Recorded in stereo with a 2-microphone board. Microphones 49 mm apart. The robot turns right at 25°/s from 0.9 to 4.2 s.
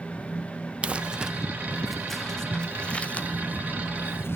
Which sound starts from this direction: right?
Crumpling, at 0.8 s.